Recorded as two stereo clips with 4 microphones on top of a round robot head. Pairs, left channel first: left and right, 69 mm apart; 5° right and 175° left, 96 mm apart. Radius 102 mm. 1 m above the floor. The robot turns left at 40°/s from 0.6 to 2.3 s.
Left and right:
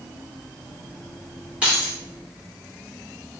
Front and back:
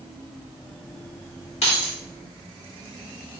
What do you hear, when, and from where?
1.6 s keys jangling: 15° right, 0.8 m; by 2.0 s 30° right, 0.8 m